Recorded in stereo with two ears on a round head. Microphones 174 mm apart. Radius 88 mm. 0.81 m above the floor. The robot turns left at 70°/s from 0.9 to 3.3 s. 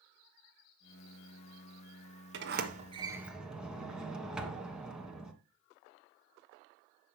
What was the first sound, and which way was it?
A sliding door, 110° right.